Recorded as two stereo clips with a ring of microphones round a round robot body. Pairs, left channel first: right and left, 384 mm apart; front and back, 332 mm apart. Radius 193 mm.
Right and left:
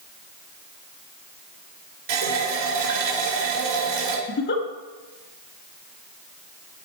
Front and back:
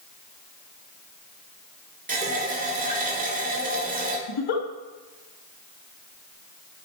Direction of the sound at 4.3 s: 25° right.